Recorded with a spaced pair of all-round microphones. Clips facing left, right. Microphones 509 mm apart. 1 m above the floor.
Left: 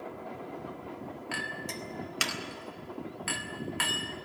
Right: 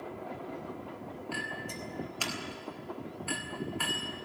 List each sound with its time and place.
1.3 s a clink: 85° left, 1.6 m